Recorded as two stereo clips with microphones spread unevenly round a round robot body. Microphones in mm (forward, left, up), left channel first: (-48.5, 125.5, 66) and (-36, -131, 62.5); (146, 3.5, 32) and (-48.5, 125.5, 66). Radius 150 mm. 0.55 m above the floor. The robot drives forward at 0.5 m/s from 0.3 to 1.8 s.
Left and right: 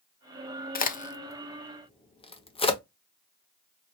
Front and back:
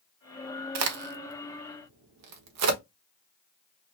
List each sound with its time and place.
0.8 s a crack: 145° left, 0.8 m; by 2.8 s 160° left, 1.2 m